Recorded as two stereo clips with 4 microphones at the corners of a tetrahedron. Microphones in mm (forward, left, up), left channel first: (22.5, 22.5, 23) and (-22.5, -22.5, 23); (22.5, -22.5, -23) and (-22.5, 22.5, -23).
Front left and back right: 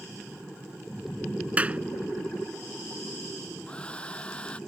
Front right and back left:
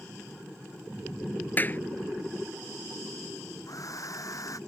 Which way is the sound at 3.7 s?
25° right.